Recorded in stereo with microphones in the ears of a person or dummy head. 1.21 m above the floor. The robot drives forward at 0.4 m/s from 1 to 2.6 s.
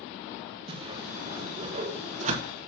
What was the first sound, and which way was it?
A whoosh, 25° right (ahead or behind).